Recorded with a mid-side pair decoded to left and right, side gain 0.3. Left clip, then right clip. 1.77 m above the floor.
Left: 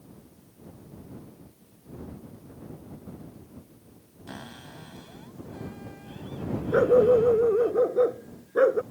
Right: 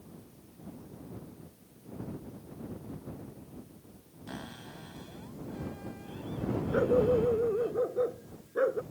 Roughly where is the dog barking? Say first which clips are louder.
Left 8 dB; ahead left.